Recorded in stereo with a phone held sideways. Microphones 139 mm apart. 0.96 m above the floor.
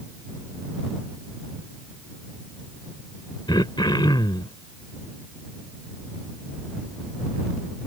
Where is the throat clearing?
35° left (ahead or behind).